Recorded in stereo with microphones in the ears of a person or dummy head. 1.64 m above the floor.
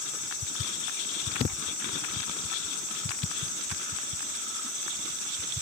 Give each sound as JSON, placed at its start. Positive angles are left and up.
{"t": 0.0, "sound": "an insect", "side_deg": 35, "distance_m": 1.0}